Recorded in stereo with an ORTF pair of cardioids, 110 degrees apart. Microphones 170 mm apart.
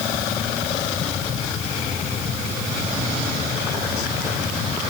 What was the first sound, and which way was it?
Only background noise.